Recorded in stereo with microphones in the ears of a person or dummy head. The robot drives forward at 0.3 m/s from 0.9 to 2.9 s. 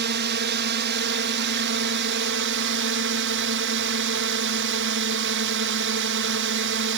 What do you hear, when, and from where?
0.0 s a drone: 65° right (ahead or behind); by 7.0 s 70° right (ahead or behind)